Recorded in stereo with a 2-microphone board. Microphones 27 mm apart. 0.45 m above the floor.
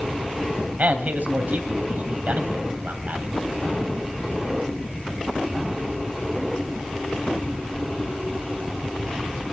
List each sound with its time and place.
0.8 s a man speaking: 65° right (ahead or behind), 2.5 m